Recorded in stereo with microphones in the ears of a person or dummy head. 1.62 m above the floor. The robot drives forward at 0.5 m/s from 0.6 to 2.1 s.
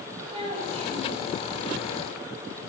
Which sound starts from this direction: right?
A child speaking, at 0.3 s.